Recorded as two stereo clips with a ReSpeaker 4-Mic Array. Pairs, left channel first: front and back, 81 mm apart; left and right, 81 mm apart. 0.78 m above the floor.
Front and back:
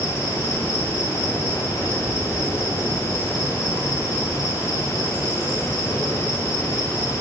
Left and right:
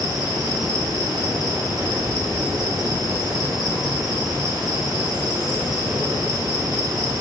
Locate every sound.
0.0 s an insect: 55° right, 9 m